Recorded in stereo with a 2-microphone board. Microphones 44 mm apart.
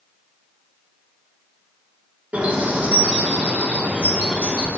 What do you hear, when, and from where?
2.3 s a bird: 40° right (ahead or behind), 3.5 m